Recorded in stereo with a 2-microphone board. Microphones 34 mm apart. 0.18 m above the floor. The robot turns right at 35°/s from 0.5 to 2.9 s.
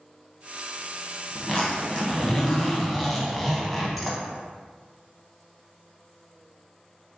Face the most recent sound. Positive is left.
turn(degrees=5)  # may be behind; listen again after turning